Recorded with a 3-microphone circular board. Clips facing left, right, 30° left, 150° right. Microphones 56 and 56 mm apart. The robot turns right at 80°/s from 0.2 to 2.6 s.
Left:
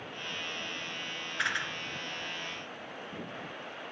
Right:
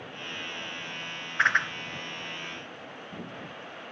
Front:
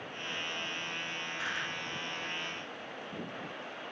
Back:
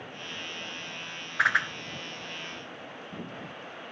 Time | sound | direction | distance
1.4 | a whoosh | 145° right | 1.0 m